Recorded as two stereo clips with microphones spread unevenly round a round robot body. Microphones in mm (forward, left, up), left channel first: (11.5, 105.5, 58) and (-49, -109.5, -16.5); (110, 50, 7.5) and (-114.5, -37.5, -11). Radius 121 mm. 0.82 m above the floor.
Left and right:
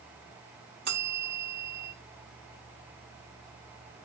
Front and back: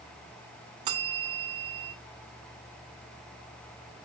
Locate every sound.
0.8 s a bell: 145° right, 1.9 m